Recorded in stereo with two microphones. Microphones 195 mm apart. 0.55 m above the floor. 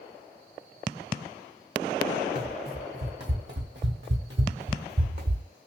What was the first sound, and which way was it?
Running footsteps, 55° right (ahead or behind).